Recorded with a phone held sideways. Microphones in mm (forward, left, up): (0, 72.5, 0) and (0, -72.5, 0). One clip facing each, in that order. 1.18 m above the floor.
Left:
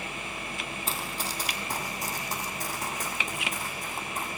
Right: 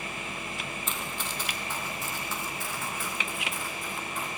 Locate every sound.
0.9 s running footsteps: 35° left (ahead or behind), 2 m; by 4.3 s 40° left (ahead or behind), 5 m